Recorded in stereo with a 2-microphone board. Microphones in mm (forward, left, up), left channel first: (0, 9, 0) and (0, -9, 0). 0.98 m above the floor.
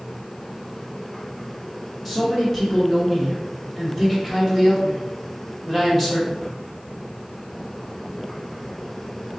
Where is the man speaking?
5° left (ahead or behind), 1.9 m.